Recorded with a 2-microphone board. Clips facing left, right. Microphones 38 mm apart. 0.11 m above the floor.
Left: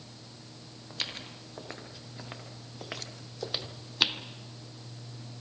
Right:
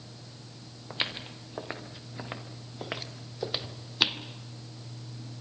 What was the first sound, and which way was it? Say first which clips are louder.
Footsteps: right 4 dB; 30° right (ahead or behind).